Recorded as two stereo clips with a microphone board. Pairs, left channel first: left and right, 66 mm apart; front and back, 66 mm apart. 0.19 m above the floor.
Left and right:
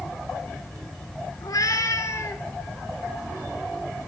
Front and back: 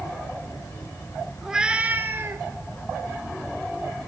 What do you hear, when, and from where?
1.4 s a cat meowing: 95° left, 0.7 m; by 2.5 s 140° left, 0.8 m